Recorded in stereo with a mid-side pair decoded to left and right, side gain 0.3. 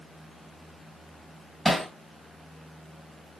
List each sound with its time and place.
1.6 s hammering: 15° left, 2.5 m